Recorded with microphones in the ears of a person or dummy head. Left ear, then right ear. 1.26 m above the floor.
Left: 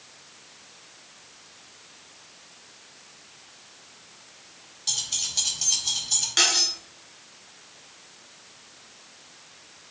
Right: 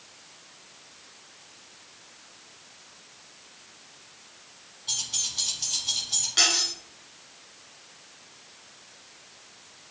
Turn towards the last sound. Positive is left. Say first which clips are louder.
# left 1 dB
turn(degrees=25)  # may be behind; listen again after turning